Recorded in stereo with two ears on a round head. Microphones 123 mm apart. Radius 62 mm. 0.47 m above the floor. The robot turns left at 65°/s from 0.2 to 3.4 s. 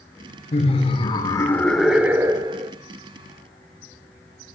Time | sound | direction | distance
0.5 | laughter | 85° left | 1.1 m